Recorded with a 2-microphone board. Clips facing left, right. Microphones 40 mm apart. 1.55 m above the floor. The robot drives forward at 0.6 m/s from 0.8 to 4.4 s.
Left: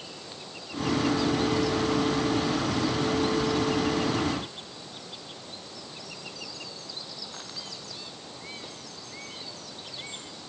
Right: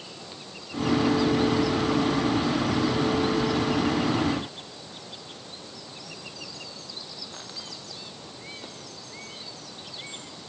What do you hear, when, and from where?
Only background noise.